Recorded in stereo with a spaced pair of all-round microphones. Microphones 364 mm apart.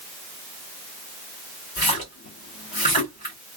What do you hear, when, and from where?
1.8 s a splash: 80° left, 2.5 m